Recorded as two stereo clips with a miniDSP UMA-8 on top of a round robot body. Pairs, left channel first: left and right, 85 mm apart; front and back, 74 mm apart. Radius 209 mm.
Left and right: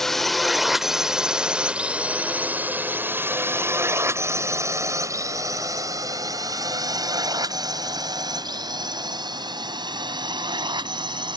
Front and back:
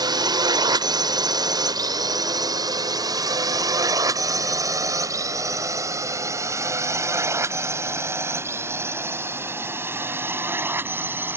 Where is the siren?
I don't hear a siren.